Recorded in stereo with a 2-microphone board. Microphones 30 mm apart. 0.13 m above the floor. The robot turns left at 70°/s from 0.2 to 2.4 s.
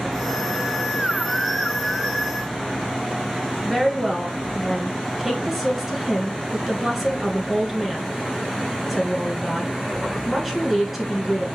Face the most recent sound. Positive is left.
turn(degrees=-10)  # may be behind; listen again after turning